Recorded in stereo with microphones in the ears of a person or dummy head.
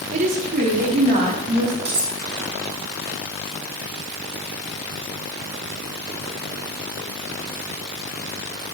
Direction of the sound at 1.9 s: 25° right (ahead or behind).